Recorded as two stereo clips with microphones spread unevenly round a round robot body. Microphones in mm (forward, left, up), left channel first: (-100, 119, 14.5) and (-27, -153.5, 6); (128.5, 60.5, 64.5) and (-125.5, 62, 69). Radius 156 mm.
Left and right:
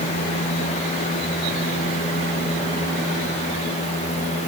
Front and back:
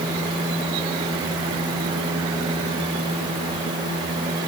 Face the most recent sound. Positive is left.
No sound to turn to.